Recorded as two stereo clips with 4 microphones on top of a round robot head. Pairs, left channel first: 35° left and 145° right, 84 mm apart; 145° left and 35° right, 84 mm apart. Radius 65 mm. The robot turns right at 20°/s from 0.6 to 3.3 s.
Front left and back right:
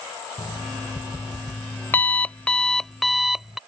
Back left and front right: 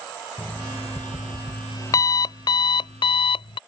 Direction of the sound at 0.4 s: 75° left.